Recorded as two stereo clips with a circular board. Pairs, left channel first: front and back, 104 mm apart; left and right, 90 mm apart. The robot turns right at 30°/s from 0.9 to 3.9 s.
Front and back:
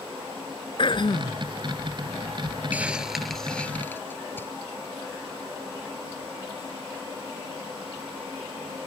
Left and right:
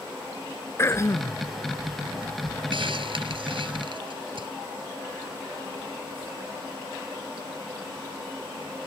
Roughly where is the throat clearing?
Ahead left.